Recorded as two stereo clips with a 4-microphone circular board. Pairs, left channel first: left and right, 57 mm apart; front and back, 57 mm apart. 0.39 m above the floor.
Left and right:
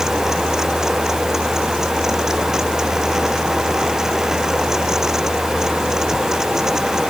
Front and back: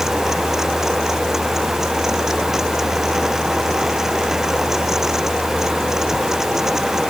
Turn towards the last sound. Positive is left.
No sound to turn to.